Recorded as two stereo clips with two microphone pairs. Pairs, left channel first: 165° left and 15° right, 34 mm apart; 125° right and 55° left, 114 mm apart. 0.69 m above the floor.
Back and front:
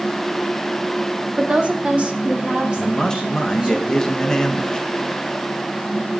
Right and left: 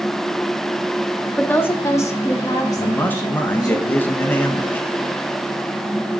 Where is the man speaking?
165° right, 0.7 m.